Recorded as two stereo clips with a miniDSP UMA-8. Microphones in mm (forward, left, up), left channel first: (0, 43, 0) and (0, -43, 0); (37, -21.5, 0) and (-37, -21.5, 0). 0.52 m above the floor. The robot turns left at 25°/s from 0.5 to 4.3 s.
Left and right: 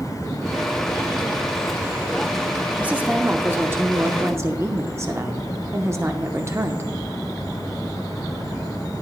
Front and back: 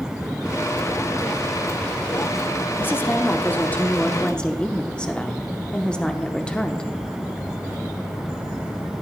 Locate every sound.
2.8 s a woman speaking: 30° right, 0.7 m; by 6.9 s 65° right, 0.7 m